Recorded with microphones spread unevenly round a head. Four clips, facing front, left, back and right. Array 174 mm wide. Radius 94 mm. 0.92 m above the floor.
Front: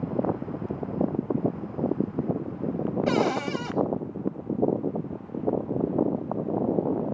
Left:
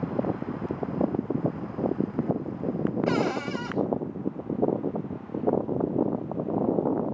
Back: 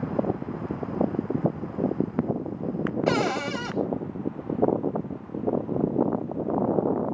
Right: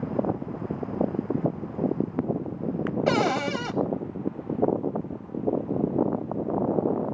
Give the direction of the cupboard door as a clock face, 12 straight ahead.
3 o'clock.